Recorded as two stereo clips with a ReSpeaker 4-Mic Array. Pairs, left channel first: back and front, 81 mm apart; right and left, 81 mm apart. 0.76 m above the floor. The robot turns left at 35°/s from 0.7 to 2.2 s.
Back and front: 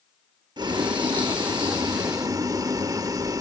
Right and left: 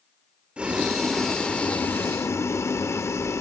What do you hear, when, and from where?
0.6 s boiling: 15° left, 0.6 m; by 3.4 s 35° right, 0.6 m